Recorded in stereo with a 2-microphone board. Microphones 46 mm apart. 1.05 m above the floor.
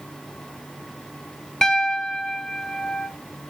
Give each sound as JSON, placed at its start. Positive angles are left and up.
{"t": 1.6, "sound": "a piano", "side_deg": 10, "distance_m": 0.6}